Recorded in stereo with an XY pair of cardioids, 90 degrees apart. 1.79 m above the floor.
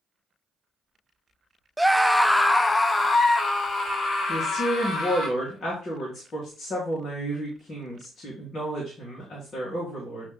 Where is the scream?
5° right, 0.6 m; by 5.3 s 55° left, 2 m.